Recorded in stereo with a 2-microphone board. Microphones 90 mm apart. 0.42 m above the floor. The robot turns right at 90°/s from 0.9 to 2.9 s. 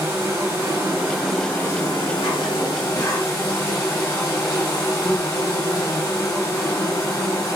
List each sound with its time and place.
0.0 s an insect: 40° right, 1.0 m; by 7.6 s 140° left, 1.0 m